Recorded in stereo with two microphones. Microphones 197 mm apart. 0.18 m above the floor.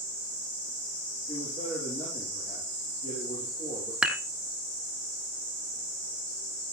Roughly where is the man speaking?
Left.